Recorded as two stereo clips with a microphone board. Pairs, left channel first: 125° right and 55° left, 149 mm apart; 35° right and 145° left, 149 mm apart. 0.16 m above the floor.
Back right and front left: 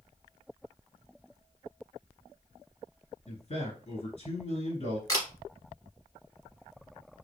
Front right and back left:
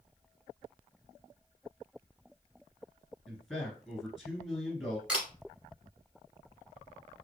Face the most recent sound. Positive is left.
turn(degrees=-140)